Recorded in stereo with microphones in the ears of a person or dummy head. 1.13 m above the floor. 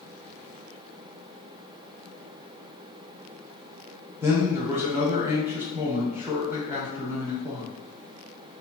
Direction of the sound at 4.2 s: 10° right (ahead or behind).